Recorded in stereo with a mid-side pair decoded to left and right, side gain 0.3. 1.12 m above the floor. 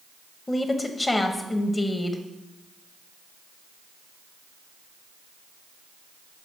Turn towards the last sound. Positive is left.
turn(degrees=35)